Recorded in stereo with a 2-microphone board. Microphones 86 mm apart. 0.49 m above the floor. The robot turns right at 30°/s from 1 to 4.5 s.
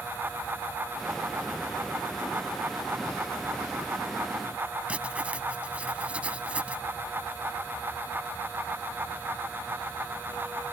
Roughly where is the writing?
Centre.